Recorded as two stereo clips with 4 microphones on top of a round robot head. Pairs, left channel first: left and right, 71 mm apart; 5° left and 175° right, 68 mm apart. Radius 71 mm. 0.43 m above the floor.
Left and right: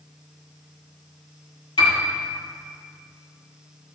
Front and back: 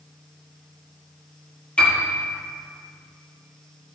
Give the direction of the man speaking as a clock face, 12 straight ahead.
No man speaking in this recording.